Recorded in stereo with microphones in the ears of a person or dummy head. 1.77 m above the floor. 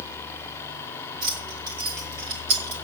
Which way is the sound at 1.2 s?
45° right (ahead or behind).